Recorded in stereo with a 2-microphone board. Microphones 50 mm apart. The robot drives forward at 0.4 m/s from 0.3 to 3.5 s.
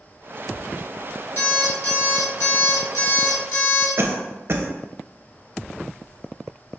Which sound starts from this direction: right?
A cough, at 4.0 s.